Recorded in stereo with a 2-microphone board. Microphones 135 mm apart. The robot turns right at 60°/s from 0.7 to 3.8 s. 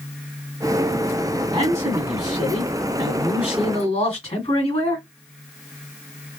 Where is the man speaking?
40° right, 1.8 m; by 5.0 s 95° left, 1.8 m.